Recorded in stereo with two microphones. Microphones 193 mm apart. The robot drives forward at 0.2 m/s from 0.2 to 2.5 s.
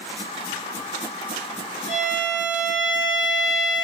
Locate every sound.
1.9 s a violin: 30° right (ahead or behind), 1.0 m